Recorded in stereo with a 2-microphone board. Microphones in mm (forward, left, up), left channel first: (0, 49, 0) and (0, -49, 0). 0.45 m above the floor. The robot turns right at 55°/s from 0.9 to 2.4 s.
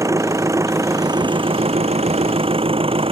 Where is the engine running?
150° right; by 3.1 s 65° right.